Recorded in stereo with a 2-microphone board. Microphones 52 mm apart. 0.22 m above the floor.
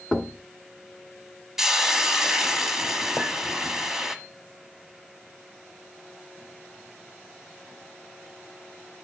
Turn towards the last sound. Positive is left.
turn(degrees=15)  # may be behind; listen again after turning